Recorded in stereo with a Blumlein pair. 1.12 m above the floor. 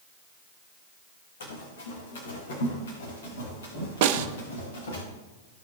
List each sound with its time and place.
1.4 s running footsteps: 60° left, 4 m
4.0 s a snare drum: 50° right, 0.7 m